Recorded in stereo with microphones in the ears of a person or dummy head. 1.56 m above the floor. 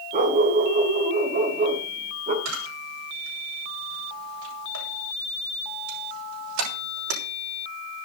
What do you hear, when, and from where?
0.1 s a dog barking: 35° right (ahead or behind), 2.5 m
2.5 s a camera shutter: 85° right, 8.5 m